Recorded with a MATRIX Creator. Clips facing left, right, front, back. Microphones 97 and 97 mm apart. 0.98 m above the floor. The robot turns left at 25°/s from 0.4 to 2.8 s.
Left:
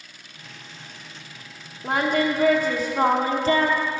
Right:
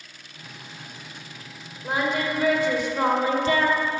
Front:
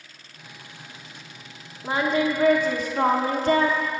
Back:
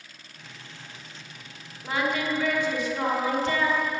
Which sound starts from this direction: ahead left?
Singing, at 1.8 s.